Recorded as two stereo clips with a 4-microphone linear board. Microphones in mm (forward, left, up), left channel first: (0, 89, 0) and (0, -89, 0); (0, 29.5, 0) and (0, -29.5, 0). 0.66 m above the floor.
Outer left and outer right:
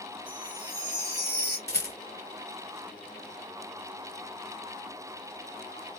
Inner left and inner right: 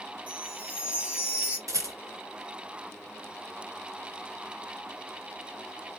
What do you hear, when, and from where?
0.3 s a chime: 25° right (ahead or behind), 2.5 m
1.7 s a rattle: 80° right, 2.5 m